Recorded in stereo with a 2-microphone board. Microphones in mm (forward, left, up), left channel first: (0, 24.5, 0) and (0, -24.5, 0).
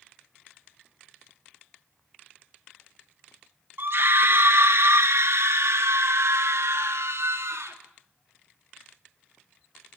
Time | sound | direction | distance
3.8 | a scream | 55° right (ahead or behind) | 1.9 m